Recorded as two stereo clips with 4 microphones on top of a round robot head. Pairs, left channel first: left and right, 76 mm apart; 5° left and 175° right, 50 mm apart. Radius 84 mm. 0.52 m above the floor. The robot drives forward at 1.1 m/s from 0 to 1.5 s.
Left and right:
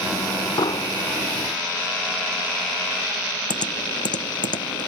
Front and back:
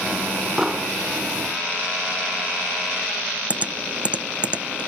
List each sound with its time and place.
0.6 s an explosion: 105° left; by 0.9 s 115° left
3.5 s typing on a keyboard: 120° left